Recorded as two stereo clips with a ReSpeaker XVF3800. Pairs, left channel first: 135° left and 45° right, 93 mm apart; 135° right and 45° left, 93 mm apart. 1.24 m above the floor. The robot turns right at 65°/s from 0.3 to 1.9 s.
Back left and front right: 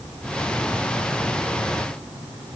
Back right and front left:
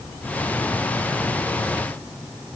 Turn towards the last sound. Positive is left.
No sound to turn to.